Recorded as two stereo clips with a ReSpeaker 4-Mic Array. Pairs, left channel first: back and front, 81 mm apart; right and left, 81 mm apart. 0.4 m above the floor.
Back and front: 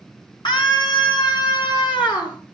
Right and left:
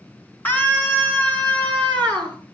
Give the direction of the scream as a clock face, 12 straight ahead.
5 o'clock.